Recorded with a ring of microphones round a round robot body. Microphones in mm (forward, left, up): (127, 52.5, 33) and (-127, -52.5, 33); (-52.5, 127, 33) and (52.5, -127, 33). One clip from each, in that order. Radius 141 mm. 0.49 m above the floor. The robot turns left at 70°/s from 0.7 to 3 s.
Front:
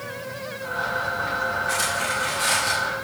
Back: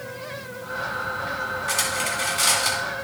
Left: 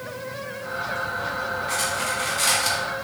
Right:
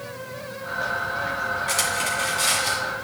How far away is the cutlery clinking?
About 2.5 m.